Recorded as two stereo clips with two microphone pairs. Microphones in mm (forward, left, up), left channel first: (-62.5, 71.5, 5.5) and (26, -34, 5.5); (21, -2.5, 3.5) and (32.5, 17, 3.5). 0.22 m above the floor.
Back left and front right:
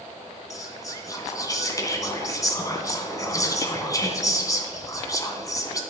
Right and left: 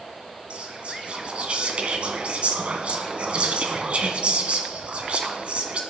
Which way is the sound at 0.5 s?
70° left.